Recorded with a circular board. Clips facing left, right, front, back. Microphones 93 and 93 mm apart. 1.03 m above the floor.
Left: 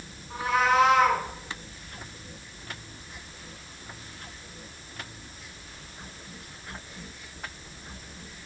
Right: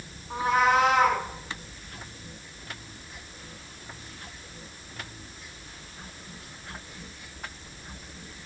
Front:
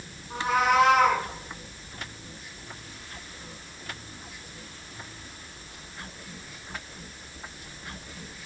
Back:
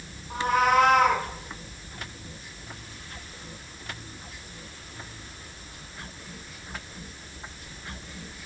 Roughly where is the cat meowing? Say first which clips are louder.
Right 1 dB, back 1 dB; behind right.